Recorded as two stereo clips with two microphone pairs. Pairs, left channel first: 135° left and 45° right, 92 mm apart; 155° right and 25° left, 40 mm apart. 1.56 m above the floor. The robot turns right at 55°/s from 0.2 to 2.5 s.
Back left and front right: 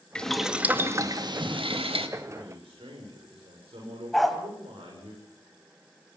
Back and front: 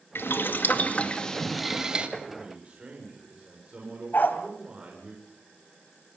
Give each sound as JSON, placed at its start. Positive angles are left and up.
{"t": 0.1, "sound": "boiling", "azimuth_deg": -145, "distance_m": 2.0}
{"t": 2.4, "sound": "a man speaking", "azimuth_deg": -45, "distance_m": 7.0}
{"t": 4.1, "sound": "a dog barking", "azimuth_deg": -140, "distance_m": 2.5}